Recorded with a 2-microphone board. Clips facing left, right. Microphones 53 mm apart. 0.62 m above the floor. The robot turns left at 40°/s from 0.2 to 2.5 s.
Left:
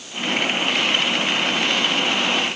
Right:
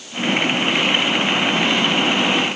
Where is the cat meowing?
No cat meowing in this recording.